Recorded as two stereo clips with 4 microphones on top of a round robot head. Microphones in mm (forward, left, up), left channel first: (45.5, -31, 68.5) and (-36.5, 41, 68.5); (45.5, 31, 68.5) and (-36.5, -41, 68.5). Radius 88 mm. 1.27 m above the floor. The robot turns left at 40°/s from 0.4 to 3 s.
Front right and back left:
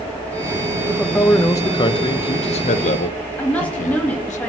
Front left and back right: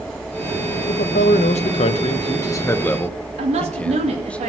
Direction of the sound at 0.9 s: 45° left.